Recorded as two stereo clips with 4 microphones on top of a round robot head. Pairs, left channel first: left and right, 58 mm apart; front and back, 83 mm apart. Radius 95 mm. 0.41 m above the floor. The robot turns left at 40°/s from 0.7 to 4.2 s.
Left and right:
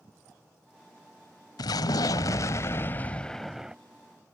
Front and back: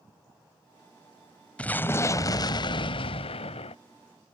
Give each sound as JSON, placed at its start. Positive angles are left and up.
{"t": 1.6, "sound": "an explosion", "azimuth_deg": 75}